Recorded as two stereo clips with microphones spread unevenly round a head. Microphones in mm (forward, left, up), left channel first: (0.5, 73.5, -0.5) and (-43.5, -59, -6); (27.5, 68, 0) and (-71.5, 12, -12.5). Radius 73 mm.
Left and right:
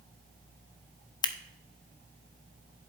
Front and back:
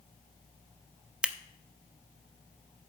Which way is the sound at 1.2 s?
125° left.